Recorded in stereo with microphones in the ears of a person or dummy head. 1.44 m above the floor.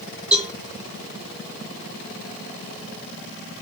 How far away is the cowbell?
About 1.7 m.